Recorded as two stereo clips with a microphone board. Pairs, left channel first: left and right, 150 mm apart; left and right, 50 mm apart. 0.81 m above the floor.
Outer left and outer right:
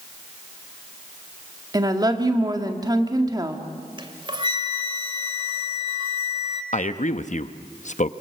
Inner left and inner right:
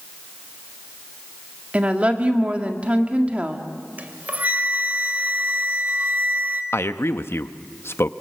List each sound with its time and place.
1.7 s a woman speaking: 25° right (ahead or behind), 1.9 m
4.0 s a flute: 30° right (ahead or behind), 1.5 m
6.7 s a man speaking: 55° left (ahead or behind), 0.9 m